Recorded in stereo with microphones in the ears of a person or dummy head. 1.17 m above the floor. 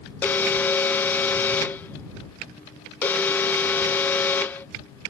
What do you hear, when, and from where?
0.2 s an alarm: 5° left (ahead or behind)